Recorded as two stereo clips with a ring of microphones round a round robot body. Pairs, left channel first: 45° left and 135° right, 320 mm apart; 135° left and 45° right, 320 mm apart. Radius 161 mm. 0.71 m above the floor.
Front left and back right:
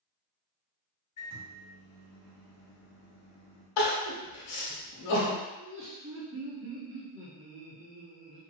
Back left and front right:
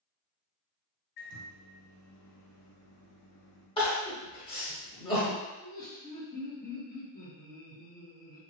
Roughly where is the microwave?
Behind left.